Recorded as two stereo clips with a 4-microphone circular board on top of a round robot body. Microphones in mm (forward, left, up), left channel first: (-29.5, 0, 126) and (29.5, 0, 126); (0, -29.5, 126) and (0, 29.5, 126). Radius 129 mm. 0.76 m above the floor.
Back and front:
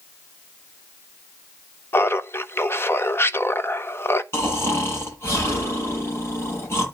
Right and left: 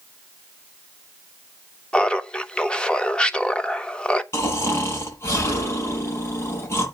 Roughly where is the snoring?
Behind right.